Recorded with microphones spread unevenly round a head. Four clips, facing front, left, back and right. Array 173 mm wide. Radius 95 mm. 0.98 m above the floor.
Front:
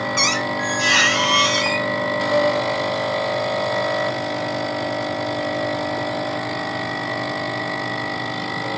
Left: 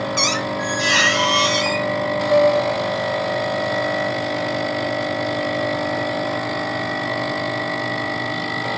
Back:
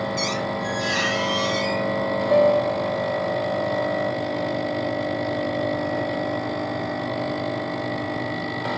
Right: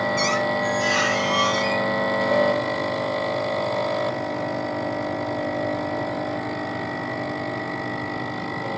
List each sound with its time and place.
0.2 s a squeak: 35° left, 1.4 m
2.3 s a piano: 100° left, 3 m